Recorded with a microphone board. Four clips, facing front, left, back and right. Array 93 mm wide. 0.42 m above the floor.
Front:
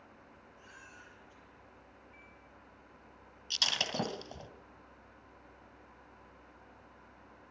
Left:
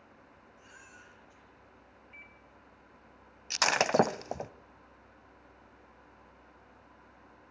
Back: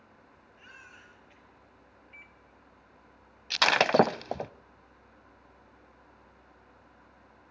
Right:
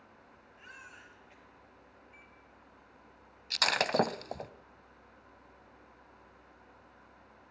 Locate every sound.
0.6 s a baby crying: 140° right, 5 m
2.1 s a microwave: 140° left, 3 m
3.5 s breaking glass: 160° left, 0.6 m